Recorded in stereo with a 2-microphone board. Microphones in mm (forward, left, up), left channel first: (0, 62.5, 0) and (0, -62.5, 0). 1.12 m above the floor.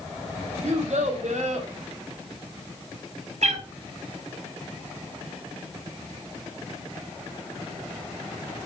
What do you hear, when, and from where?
0.6 s a child speaking: 70° right (ahead or behind), 2.5 m
3.4 s a cat meowing: 70° right (ahead or behind), 1.9 m